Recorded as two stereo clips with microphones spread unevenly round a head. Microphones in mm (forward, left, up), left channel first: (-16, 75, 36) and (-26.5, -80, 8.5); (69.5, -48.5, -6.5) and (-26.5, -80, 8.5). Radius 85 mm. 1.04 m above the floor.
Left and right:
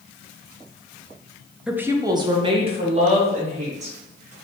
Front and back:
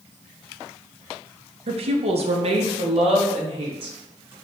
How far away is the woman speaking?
About 0.6 m.